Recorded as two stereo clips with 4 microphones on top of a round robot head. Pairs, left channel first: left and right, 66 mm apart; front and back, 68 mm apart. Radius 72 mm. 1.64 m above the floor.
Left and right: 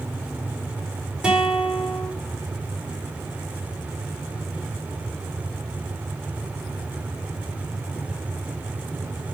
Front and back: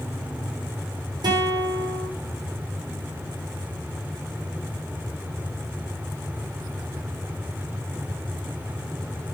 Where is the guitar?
165° right, 5 m.